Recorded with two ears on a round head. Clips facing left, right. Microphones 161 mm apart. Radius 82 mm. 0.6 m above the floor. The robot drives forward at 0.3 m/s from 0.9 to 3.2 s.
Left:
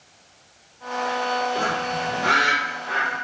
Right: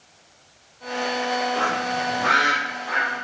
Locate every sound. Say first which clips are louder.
1.6 s a bird: right 1 dB; 30° left (ahead or behind), 1.9 m; by 3.1 s 25° left (ahead or behind), 2 m